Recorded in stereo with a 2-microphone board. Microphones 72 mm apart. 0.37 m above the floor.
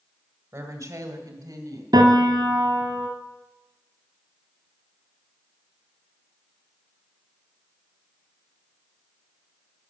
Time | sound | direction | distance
0.5 | a woman speaking | 45° right (ahead or behind) | 1.5 m
1.9 | a piano | 75° right (ahead or behind) | 1.6 m